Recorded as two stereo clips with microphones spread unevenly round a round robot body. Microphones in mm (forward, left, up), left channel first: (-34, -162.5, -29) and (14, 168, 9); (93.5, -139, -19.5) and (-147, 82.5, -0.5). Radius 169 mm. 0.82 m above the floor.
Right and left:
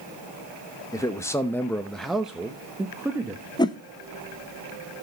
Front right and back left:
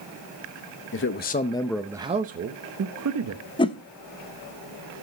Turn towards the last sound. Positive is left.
turn(degrees=-75)